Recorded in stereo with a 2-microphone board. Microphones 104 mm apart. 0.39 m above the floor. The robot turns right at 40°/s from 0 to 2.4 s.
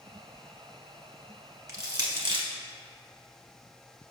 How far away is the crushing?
About 1.2 m.